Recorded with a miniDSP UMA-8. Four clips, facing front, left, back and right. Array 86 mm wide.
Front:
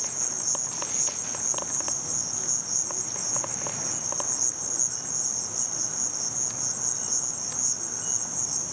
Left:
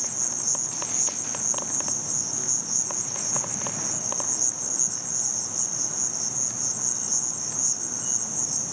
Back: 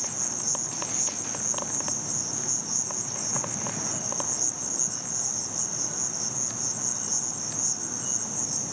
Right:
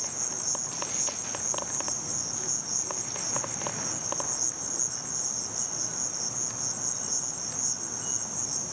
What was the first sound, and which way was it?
An insect, 145° left.